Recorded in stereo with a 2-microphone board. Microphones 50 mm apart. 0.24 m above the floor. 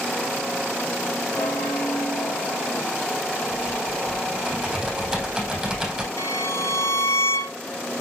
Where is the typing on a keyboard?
10° right (ahead or behind), 3.5 m.